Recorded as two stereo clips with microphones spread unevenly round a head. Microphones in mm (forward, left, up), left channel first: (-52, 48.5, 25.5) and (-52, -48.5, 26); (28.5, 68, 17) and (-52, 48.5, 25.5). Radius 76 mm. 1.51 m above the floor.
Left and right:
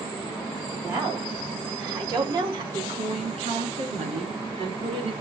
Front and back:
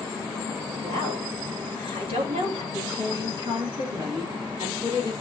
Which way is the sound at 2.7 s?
100° right.